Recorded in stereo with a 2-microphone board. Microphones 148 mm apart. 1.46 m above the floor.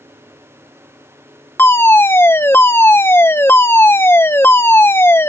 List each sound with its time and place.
1.6 s a fire alarm: 15° left (ahead or behind)